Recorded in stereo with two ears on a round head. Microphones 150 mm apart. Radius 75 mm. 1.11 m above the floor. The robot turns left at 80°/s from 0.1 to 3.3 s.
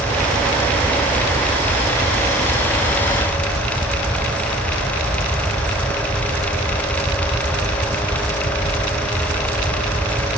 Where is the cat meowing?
No cat meowing in this recording.